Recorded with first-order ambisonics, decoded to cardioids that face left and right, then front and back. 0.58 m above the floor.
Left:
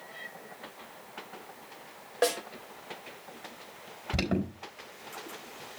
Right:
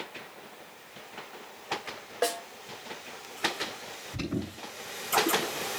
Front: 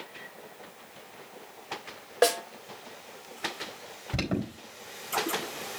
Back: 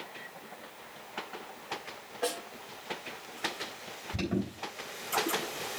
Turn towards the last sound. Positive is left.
turn(degrees=60)